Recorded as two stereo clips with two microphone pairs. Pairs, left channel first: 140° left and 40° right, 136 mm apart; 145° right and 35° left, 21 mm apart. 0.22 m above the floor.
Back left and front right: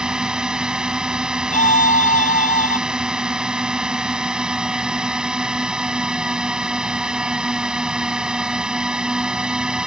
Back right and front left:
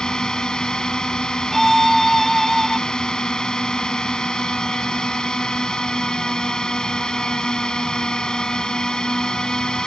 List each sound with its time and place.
0.0 s a drone: 120° right
1.5 s a violin: 130° left